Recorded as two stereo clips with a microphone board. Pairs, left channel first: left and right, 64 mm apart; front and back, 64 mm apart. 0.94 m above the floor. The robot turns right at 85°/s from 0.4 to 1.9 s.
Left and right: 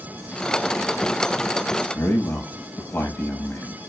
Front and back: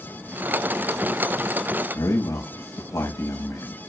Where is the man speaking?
30° left, 6 m.